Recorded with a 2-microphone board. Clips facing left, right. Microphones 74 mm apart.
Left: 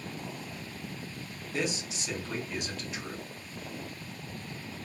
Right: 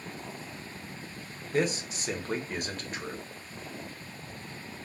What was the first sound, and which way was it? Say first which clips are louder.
A man speaking: right 5 dB; 45° right (ahead or behind).